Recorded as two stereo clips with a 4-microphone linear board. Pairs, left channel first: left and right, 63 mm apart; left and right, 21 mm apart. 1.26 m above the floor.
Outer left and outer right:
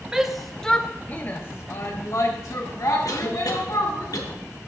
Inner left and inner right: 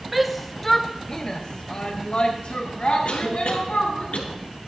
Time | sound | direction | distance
0.1 | a shout | 10° right (ahead or behind) | 0.9 m
3.0 | a cough | 65° left (ahead or behind) | 1.5 m